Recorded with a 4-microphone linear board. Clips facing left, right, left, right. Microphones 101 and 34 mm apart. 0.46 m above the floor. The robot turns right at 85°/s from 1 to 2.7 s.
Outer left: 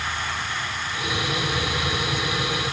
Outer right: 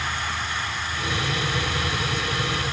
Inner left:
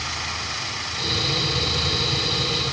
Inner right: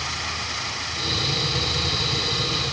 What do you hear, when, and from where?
Only background noise.